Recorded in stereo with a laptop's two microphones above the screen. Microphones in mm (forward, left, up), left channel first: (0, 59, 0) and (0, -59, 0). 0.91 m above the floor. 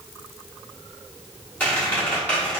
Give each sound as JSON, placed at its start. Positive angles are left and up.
{"t": 1.6, "sound": "a squeak", "side_deg": 15, "distance_m": 1.1}